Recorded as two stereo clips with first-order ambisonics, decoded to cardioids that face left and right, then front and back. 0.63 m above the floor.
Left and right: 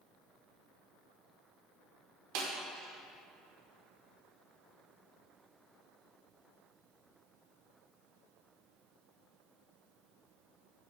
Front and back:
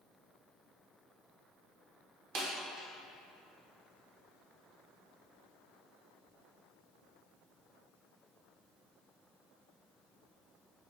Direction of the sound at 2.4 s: 120° right.